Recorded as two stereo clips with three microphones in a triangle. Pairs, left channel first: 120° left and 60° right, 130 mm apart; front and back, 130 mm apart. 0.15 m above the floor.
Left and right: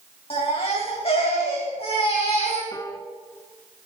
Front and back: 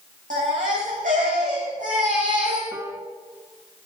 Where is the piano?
145° left, 1.0 m.